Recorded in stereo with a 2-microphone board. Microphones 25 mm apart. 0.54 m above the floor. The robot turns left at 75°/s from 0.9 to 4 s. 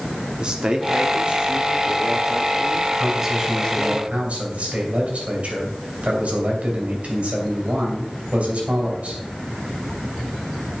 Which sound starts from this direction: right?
A man speaking, at 0.4 s.